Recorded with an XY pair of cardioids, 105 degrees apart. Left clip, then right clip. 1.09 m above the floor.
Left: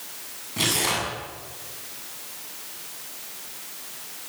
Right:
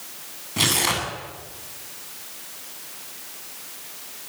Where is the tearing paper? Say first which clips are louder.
Right 2 dB; 30° right, 8 m.